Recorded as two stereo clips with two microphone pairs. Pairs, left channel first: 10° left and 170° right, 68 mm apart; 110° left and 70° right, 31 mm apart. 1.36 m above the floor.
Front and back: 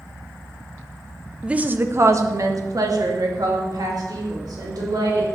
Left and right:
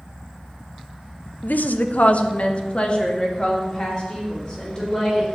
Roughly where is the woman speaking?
Left.